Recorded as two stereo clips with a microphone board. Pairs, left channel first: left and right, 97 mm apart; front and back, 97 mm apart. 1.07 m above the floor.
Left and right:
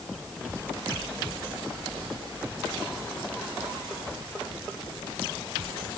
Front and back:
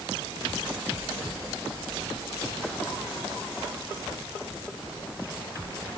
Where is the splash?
I don't hear a splash.